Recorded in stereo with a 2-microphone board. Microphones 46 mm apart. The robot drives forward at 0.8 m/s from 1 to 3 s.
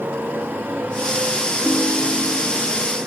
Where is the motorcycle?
55° right (ahead or behind); by 3.1 s 50° right (ahead or behind).